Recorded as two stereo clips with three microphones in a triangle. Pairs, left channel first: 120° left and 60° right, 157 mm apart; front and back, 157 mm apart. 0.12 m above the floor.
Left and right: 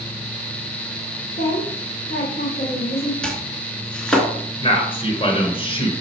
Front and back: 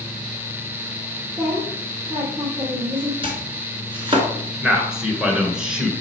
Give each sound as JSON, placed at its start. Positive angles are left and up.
{"t": 1.4, "sound": "a woman speaking", "azimuth_deg": 120, "distance_m": 2.0}
{"t": 3.2, "sound": "chopping", "azimuth_deg": -160, "distance_m": 1.5}
{"t": 4.6, "sound": "a man speaking", "azimuth_deg": 100, "distance_m": 1.6}